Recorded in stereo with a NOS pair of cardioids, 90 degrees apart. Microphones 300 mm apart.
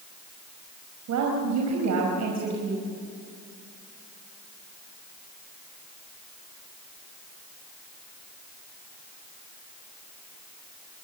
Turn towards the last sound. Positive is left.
turn(degrees=-65)